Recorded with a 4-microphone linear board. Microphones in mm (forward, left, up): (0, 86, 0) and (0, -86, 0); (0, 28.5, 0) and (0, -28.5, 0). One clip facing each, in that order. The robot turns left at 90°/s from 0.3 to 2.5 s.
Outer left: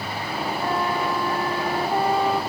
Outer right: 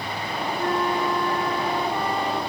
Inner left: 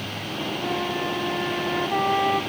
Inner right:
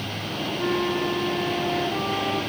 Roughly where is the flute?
Behind right.